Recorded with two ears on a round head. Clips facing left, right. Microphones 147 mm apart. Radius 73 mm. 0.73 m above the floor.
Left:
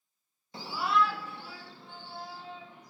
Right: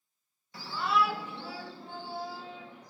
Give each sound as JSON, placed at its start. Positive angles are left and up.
{"t": 0.5, "sound": "a shout", "side_deg": 25, "distance_m": 0.7}